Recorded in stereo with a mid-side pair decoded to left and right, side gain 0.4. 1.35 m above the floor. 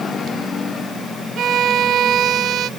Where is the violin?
70° right.